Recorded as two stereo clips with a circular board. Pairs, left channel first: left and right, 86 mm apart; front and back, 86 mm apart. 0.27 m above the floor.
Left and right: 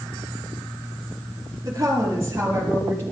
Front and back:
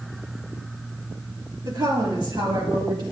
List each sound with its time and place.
1.6 s a woman speaking: 140° right, 5.5 m; by 3.0 s 150° right, 6 m